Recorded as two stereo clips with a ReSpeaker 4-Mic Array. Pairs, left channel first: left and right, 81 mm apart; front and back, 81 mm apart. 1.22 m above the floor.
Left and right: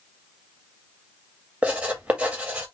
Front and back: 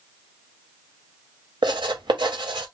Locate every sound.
1.6 s writing: 165° right, 2 m